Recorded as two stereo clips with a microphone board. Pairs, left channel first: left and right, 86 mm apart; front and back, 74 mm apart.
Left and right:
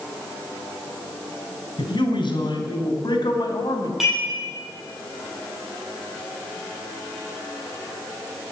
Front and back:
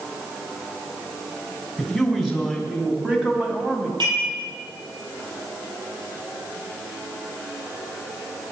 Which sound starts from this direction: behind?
Dishes clattering, at 4.0 s.